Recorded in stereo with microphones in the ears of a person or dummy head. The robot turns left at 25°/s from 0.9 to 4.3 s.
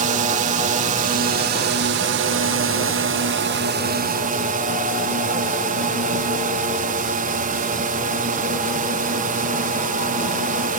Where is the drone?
40° right; by 10.8 s 125° right.